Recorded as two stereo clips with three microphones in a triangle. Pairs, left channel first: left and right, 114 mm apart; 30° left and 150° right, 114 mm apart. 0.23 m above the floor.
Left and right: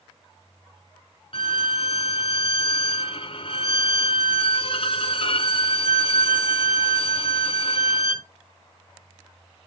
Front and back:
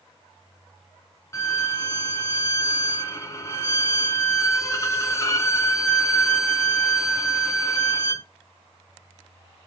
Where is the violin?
85° left, 1.3 m.